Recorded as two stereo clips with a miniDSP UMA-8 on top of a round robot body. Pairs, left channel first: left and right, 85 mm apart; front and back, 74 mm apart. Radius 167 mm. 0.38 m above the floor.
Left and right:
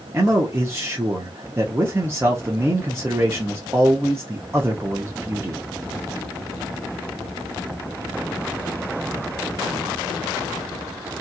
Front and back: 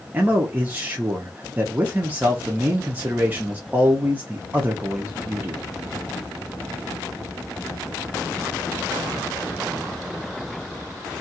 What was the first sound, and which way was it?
A man speaking, 130° right.